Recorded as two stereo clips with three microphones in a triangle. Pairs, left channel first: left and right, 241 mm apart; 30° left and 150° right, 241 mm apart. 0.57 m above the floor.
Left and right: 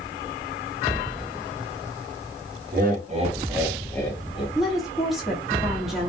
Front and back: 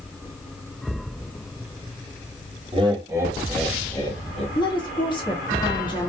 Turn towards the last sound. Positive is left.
turn(degrees=-5)